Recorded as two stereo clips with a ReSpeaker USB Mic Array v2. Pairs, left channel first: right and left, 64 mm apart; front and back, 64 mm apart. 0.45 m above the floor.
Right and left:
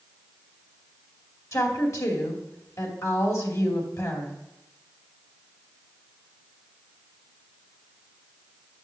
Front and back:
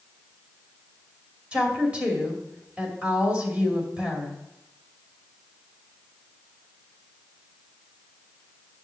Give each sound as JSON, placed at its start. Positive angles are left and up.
{"t": 1.5, "sound": "a woman speaking", "azimuth_deg": -110, "distance_m": 2.5}